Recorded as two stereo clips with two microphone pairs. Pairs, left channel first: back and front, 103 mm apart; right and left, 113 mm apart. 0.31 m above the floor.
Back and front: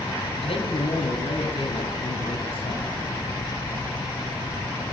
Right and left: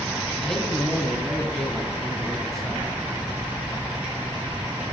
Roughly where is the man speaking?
Behind.